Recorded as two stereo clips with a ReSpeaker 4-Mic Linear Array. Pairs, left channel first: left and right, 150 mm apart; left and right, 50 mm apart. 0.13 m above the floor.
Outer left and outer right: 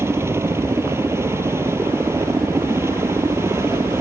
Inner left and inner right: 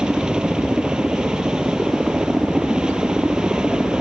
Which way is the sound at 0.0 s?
15° right (ahead or behind).